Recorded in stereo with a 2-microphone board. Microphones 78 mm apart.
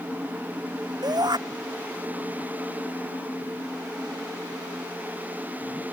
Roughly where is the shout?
Right.